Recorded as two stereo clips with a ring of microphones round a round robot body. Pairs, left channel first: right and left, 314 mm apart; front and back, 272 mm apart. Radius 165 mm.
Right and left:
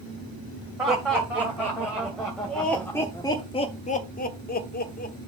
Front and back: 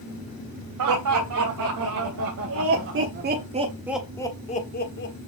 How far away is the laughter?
About 3 m.